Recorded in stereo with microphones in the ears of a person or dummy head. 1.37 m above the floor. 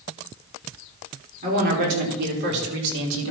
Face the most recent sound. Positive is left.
turn(degrees=-80)